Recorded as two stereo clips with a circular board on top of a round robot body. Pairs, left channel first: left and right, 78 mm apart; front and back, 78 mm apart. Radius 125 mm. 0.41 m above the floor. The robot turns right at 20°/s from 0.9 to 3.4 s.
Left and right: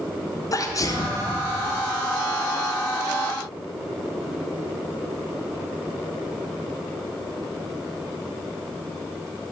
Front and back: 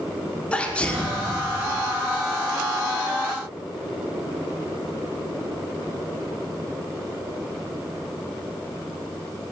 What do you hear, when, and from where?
0.5 s a sneeze: 70° left, 1.0 m; by 1.2 s 75° left, 1.0 m